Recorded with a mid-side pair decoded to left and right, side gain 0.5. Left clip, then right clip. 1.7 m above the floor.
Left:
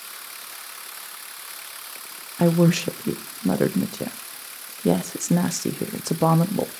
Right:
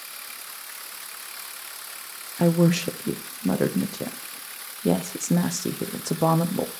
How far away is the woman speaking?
About 1.0 m.